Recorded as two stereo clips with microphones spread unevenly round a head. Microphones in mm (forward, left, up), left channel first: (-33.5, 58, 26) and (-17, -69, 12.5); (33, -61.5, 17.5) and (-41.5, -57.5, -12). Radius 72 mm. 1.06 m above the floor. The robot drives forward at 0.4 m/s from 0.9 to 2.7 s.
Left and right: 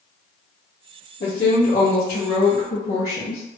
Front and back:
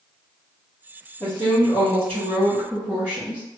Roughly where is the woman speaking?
Ahead left.